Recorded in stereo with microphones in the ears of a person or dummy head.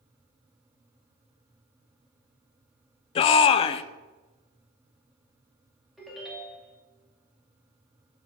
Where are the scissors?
No scissors in this recording.